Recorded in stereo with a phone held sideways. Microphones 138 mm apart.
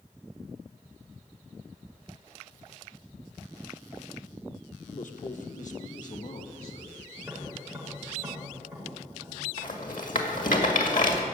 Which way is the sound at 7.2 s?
10° right (ahead or behind).